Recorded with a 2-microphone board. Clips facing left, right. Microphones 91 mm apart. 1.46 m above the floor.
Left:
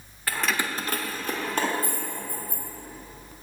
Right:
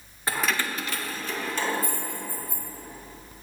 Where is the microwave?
I don't hear a microwave.